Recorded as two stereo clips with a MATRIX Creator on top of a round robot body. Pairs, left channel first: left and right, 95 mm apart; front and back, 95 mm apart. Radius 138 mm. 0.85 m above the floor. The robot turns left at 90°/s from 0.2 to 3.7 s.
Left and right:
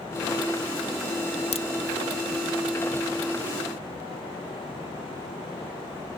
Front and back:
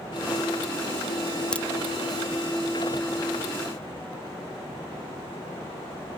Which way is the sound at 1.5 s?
80° left.